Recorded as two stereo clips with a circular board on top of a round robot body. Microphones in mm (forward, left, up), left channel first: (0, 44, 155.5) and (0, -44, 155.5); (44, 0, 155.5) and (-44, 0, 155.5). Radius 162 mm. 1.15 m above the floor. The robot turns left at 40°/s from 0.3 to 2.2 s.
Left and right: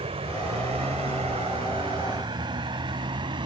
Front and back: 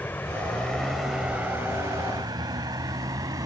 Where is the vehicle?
75° right; by 3.5 s 125° right.